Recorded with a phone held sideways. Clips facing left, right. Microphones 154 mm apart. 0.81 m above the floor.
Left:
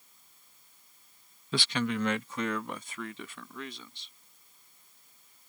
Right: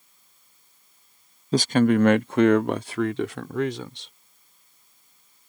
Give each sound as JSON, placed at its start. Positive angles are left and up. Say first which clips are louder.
{"t": 1.5, "sound": "a man speaking", "louder": "right 12 dB", "side_deg": -40}